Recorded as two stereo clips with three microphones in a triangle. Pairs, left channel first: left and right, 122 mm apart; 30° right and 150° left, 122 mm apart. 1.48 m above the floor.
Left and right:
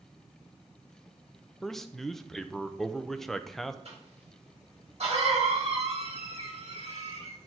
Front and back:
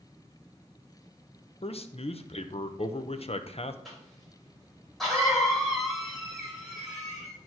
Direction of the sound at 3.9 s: 120° right.